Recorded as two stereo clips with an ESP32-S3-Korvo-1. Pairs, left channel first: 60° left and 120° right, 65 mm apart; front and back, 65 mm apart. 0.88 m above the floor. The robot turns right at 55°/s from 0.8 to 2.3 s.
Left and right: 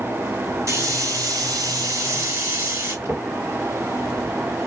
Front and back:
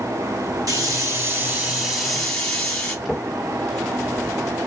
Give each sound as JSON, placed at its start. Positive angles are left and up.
{"t": 0.7, "sound": "a hiss", "azimuth_deg": -160, "distance_m": 1.7}
{"t": 3.0, "sound": "a drawer", "azimuth_deg": -85, "distance_m": 1.3}